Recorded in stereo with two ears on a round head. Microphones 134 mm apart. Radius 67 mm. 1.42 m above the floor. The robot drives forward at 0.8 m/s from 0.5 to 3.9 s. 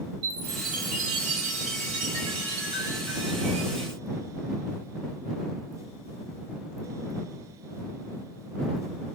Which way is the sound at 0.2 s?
65° right (ahead or behind).